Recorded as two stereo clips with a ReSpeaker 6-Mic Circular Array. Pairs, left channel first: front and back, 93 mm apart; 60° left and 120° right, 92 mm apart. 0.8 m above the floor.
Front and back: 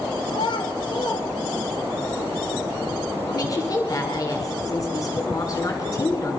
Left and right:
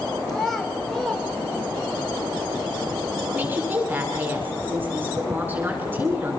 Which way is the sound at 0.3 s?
30° right.